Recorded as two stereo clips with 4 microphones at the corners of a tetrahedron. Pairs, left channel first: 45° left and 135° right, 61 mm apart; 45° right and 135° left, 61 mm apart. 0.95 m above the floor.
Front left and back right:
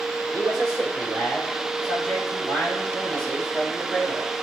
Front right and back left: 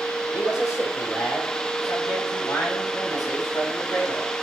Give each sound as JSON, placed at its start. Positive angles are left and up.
{"t": 0.3, "sound": "a man speaking", "azimuth_deg": -35, "distance_m": 3.5}